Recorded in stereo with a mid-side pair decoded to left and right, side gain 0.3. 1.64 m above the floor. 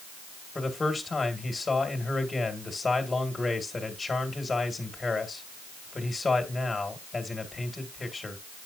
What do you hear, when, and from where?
0.6 s a man speaking: 40° left, 2 m